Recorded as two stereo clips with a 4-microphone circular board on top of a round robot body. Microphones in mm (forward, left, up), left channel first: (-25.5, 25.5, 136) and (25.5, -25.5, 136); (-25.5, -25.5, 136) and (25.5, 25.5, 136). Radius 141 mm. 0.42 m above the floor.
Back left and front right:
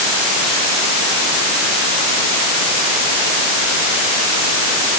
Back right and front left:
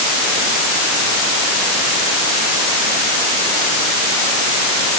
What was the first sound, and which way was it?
Only background noise.